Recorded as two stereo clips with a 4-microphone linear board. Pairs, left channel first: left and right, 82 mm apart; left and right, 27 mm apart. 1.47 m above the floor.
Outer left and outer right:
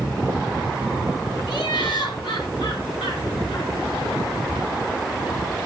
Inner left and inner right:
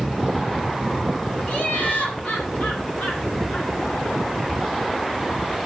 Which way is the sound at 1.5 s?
70° left (ahead or behind).